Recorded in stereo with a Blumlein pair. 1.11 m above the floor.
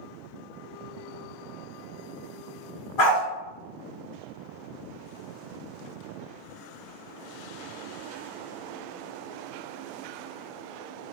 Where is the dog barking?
40° left, 1.5 m.